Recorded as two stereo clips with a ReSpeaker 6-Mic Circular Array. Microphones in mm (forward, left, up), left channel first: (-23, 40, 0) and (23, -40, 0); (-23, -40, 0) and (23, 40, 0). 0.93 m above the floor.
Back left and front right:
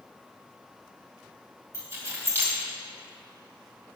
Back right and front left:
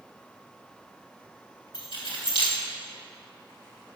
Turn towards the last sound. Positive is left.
turn(degrees=-120)